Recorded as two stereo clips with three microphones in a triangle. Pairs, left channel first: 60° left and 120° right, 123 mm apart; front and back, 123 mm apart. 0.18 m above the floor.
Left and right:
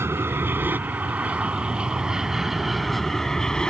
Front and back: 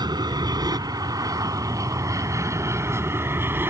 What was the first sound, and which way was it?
An aircraft, 175° right.